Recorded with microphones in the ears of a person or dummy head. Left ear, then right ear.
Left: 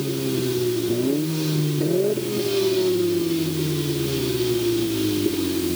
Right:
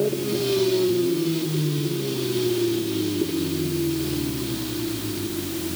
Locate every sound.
Only background noise.